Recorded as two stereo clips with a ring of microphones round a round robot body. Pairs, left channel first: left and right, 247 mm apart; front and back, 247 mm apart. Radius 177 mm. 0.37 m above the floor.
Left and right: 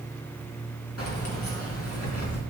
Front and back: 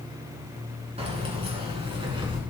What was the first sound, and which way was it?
Keys jangling, 115° left.